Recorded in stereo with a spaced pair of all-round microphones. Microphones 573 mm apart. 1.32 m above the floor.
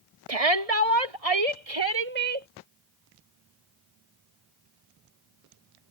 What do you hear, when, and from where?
0.3 s a shout: 80° right; by 2.5 s 65° right (ahead or behind)